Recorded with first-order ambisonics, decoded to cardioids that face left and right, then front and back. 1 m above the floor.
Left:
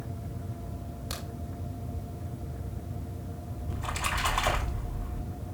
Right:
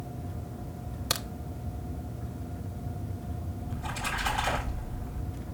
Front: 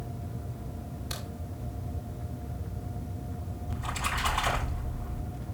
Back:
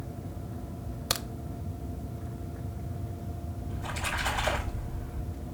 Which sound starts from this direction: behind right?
A crack, at 1.1 s.